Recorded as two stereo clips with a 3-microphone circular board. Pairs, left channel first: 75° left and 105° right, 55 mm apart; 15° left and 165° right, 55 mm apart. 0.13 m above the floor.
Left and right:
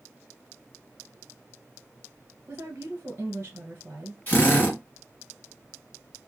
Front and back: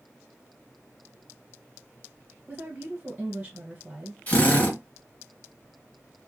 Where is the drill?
55° left, 1.8 m.